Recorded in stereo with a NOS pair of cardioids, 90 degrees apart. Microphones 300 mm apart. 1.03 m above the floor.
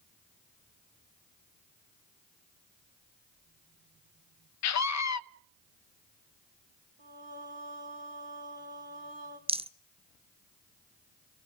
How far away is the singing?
About 3 m.